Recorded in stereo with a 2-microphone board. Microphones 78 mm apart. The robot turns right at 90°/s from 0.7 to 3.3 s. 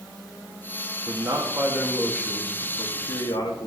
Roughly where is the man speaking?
Right.